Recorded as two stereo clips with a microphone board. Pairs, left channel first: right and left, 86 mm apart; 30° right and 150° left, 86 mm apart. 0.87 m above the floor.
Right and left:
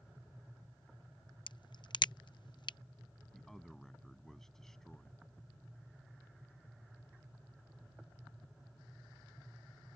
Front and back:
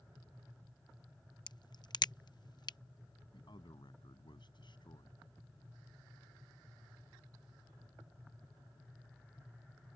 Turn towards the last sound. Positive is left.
turn(degrees=-5)